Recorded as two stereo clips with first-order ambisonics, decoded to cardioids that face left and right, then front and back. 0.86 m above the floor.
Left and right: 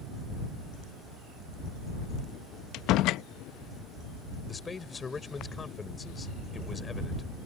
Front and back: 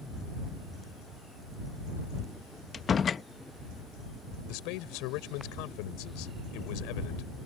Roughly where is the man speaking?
Ahead.